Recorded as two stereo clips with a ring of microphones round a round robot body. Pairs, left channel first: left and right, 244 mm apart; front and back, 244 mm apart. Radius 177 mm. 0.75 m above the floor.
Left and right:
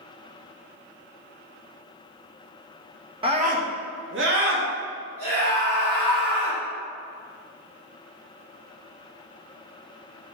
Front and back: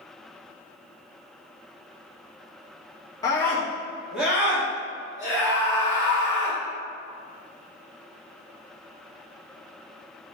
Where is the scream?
55° right, 0.7 m; by 6.6 s 105° right, 2.5 m.